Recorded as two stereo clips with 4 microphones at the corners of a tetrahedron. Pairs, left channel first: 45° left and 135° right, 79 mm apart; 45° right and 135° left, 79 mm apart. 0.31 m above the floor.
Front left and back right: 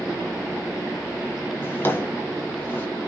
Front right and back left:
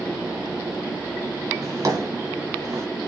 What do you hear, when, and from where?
1.6 s a drawer: 100° left, 1.2 m